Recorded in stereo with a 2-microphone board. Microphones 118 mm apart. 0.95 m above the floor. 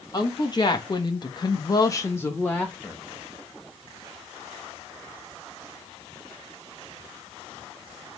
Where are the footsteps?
I don't hear footsteps.